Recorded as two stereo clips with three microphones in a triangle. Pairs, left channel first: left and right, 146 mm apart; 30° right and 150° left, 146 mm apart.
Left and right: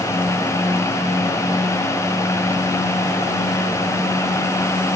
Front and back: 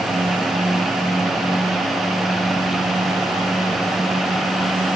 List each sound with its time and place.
Only background noise.